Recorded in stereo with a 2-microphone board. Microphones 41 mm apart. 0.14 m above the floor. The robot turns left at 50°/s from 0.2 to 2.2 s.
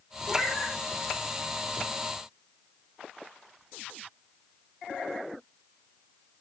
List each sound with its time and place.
0.3 s a cat meowing: 5° left (ahead or behind), 3.5 m; by 0.8 s 20° right (ahead or behind), 3.5 m